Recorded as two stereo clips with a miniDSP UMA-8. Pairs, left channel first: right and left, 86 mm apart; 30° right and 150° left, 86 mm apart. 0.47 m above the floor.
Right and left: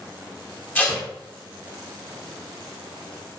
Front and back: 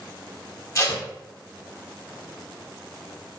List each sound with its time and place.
0.8 s tape being pulled: 40° right, 0.9 m